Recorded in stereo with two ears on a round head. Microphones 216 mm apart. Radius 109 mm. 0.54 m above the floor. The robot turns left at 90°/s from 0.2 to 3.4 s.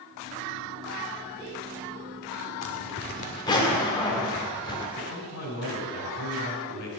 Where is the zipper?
95° left, 1.2 m; by 4.9 s 20° left, 1.2 m.